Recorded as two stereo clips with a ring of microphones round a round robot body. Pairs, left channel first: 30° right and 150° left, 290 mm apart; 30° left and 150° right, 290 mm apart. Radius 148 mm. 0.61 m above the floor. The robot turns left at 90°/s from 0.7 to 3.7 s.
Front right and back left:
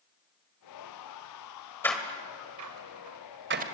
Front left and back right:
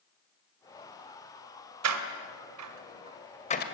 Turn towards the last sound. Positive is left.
turn(degrees=80)